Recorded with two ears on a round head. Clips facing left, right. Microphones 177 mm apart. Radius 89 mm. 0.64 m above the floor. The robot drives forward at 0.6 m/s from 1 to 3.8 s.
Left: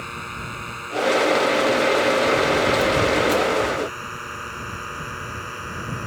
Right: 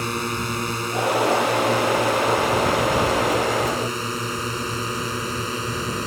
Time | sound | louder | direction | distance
0.0 | a drone | right 9 dB | 60° right (ahead or behind) | ?